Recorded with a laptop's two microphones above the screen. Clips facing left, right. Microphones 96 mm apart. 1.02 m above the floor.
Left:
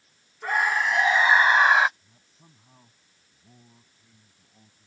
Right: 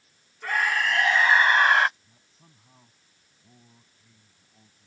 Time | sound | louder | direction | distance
0.4 | a scream | left 1 dB | 20° left (ahead or behind) | ?
2.0 | a man speaking | left 1 dB | 5° left (ahead or behind) | ?